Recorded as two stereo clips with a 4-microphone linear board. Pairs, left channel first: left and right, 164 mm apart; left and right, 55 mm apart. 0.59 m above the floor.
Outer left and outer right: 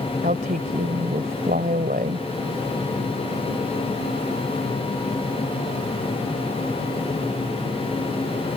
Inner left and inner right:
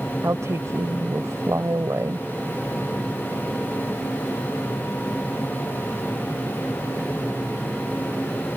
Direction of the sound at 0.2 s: 60° right (ahead or behind).